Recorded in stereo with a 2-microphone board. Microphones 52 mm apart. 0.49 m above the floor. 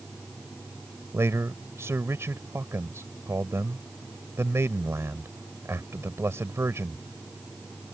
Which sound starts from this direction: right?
A man speaking, at 1.1 s.